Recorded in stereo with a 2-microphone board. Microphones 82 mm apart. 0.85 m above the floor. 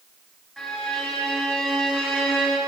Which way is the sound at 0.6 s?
5° left (ahead or behind).